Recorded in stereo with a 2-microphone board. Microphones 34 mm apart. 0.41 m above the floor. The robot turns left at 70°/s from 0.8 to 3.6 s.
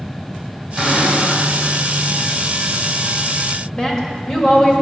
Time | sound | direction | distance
0.8 | a cupboard door | 165° right | 3 m
3.8 | a woman speaking | 25° left (ahead or behind) | 1.4 m